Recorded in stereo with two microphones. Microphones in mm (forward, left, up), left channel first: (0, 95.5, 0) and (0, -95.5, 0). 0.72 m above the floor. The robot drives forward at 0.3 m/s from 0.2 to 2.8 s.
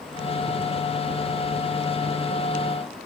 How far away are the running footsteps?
I don't hear running footsteps.